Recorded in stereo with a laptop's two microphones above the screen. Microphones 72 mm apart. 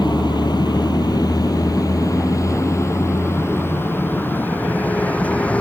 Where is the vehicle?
85° left; by 5.6 s 15° left (ahead or behind).